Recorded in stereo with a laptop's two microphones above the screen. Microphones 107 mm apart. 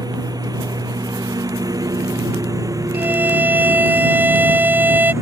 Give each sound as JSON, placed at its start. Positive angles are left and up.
{"t": 0.0, "sound": "a lawn mower", "side_deg": -40}
{"t": 2.9, "sound": "a violin", "side_deg": -15}